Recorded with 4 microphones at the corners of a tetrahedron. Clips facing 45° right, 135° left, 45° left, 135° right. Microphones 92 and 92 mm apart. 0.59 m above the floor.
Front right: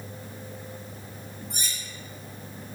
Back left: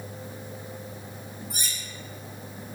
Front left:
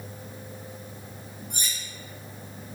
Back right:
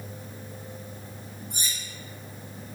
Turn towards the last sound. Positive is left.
turn(degrees=50)